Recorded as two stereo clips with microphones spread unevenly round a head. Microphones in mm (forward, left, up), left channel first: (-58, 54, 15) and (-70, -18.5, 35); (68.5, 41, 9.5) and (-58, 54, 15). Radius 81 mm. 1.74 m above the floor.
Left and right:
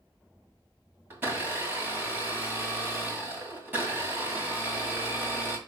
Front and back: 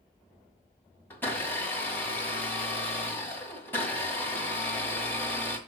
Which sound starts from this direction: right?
A blender, at 1.1 s.